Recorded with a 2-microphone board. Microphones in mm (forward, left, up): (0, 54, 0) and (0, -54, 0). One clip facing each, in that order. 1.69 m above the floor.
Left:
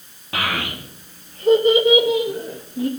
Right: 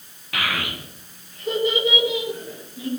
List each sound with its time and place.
0.3 s a child speaking: 30° left (ahead or behind), 1.9 m; by 2.9 s 50° left (ahead or behind), 1.3 m